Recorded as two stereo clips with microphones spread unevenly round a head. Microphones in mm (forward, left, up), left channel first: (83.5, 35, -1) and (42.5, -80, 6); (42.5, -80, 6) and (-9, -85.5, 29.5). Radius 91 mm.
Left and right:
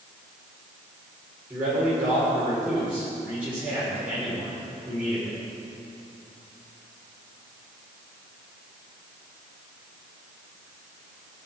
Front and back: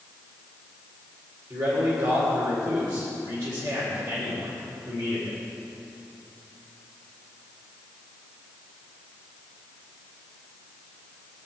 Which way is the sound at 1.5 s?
170° left.